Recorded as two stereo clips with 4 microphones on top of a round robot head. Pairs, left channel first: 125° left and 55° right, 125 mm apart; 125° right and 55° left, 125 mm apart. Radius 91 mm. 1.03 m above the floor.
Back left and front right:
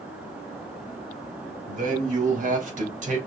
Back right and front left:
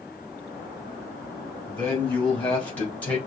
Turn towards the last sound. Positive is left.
turn(degrees=-50)